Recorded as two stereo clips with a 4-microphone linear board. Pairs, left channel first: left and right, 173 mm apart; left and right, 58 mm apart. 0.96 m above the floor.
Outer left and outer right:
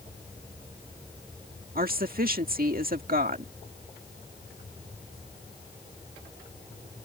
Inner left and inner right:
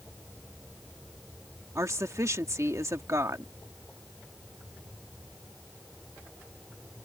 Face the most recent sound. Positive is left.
turn(degrees=-55)  # may be behind; listen again after turning